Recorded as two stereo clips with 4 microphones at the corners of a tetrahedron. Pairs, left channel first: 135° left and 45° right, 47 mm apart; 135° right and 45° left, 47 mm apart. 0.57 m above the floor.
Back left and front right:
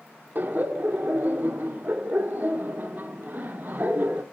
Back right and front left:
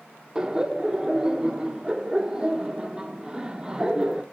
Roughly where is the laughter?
Ahead right.